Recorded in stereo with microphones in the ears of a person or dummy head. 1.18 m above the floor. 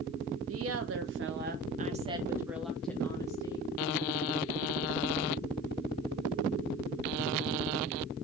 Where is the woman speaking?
75° right (ahead or behind), 1.1 m; by 3.7 s 20° left (ahead or behind), 1.2 m.